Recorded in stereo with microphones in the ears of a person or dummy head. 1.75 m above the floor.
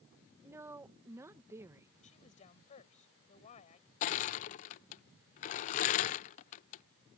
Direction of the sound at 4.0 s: 40° left (ahead or behind).